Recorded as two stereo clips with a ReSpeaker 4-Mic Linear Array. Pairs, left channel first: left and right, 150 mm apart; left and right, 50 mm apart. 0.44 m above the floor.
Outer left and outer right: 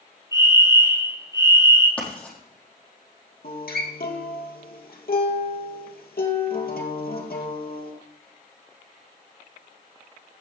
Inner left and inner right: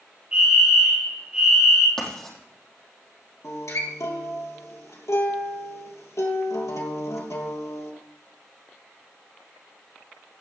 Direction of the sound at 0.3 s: 20° right (ahead or behind).